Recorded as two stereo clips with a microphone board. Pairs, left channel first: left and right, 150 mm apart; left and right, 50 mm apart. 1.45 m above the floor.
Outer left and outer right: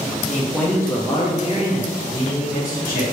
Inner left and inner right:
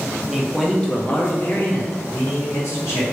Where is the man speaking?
5° right (ahead or behind), 0.8 m; by 3.0 s 70° left (ahead or behind), 1.5 m.